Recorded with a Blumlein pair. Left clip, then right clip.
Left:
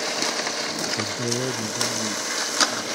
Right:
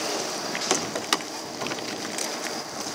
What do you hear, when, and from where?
1.0 s a man speaking: 55° left; by 3.0 s 30° left